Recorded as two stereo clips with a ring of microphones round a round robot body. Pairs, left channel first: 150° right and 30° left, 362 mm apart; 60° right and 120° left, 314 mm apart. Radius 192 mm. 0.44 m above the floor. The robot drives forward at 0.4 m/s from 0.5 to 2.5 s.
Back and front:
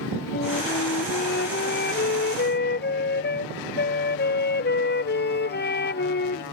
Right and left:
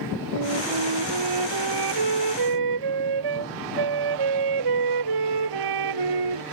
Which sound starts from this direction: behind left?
A flute, at 0.3 s.